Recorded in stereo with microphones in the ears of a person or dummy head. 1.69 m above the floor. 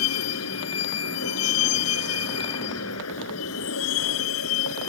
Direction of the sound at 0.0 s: 80° left.